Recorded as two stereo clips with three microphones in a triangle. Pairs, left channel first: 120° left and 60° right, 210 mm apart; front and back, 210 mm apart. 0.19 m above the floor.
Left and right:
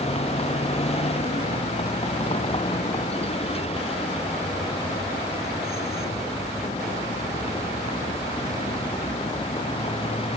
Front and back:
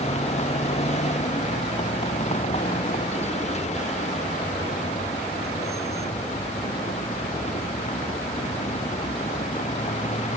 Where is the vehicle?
60° left; by 10.4 s 55° left.